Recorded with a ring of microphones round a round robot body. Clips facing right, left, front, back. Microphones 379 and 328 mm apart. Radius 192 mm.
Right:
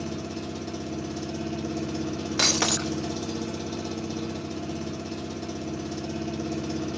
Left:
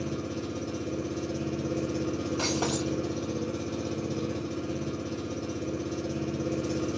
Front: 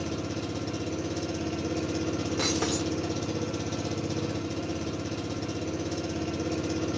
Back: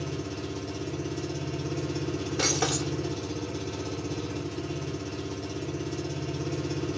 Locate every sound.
0.0 s an engine running: 15° right, 1.0 m
2.4 s breaking glass: 80° right, 0.5 m